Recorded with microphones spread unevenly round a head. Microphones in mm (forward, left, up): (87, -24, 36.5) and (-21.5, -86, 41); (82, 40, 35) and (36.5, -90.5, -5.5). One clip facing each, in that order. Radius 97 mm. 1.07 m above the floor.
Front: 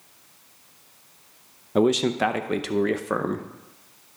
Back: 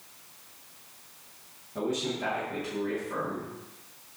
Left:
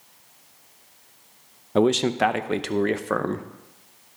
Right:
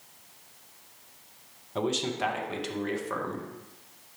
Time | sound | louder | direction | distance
1.8 | a man speaking | front 11 dB, left 10 dB | 40° left | 0.6 m